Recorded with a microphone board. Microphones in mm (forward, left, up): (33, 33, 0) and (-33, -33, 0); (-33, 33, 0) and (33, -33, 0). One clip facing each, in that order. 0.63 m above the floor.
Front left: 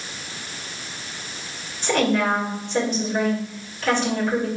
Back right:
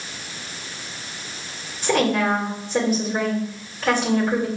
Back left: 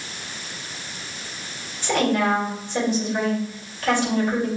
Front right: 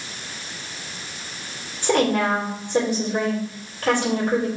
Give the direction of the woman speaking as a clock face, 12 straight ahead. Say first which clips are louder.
Back right 1 dB, front right 1 dB; 2 o'clock.